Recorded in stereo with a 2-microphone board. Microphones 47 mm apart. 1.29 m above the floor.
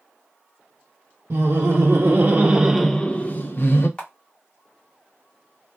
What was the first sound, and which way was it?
Laughter, 65° right (ahead or behind).